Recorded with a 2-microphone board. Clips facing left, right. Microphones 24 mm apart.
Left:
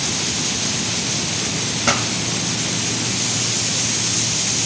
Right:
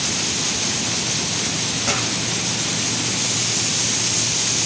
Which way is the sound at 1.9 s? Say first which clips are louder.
Left 5 dB; 35° left (ahead or behind).